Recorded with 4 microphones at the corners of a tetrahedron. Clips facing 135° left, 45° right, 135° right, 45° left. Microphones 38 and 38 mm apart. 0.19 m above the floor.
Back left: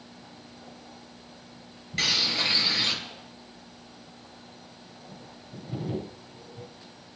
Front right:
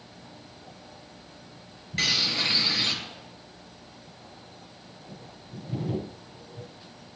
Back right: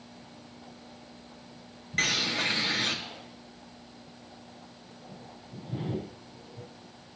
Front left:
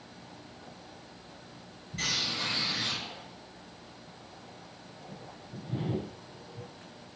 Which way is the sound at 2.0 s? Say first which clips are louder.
Even, back right 5 dB; 135° right.